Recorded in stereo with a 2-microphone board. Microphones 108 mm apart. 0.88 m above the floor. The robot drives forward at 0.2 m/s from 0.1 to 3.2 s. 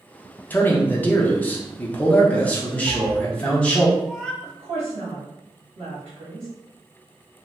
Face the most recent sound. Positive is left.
turn(degrees=-50)  # may be behind; listen again after turning